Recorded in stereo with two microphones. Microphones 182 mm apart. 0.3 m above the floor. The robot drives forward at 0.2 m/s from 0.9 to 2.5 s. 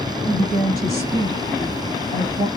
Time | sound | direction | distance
0.3 | a woman speaking | 50° right (ahead or behind) | 1.7 m